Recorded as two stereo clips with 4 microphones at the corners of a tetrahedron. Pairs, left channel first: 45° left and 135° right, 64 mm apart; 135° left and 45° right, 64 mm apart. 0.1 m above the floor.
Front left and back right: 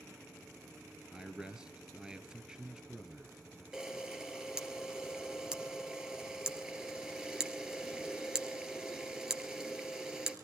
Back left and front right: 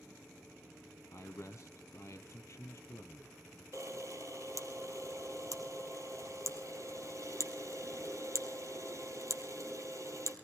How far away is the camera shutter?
About 2 m.